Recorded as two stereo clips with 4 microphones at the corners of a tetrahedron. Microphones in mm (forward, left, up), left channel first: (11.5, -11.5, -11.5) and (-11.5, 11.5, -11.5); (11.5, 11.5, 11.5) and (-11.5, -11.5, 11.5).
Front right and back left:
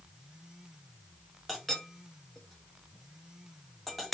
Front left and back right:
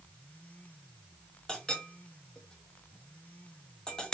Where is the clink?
45° left, 1.0 m.